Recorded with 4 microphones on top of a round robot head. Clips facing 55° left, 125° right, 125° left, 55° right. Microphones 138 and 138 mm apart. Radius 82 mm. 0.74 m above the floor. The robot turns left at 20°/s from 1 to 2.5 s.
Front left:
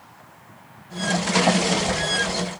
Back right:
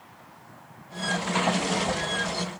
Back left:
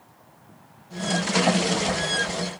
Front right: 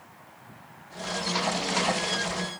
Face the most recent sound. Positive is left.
No sound to turn to.